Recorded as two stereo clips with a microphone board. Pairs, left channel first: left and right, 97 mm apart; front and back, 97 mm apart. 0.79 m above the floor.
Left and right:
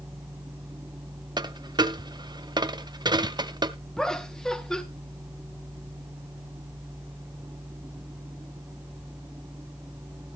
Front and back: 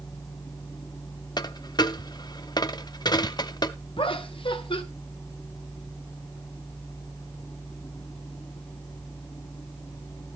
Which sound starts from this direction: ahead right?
A dropped coin, at 1.4 s.